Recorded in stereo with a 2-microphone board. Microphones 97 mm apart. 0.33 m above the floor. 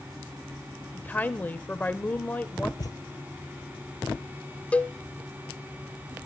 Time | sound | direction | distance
0.9 | a woman speaking | 20° left (ahead or behind) | 0.8 m
2.8 | a thud | 40° left (ahead or behind) | 1.5 m
4.7 | a cowbell | 15° left (ahead or behind) | 0.7 m